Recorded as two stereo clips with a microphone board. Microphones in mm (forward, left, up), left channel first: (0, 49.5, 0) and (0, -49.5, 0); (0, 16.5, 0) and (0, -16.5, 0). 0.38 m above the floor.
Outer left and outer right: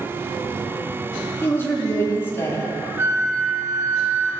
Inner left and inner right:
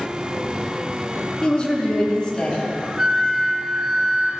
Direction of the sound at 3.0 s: 30° right (ahead or behind).